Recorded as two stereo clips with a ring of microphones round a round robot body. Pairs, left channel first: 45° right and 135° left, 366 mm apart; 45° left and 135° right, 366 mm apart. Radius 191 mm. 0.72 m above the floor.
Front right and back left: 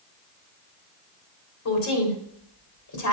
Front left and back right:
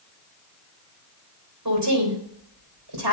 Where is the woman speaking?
90° right, 3.5 m.